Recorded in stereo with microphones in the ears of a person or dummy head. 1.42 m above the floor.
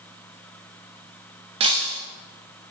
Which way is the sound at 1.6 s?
30° right (ahead or behind).